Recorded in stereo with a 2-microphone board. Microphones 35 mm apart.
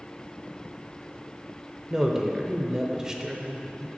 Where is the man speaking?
15° right (ahead or behind), 0.8 m.